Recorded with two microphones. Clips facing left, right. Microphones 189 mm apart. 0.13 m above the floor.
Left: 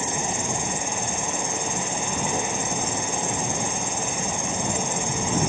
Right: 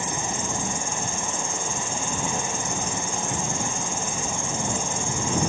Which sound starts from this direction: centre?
An insect, at 0.0 s.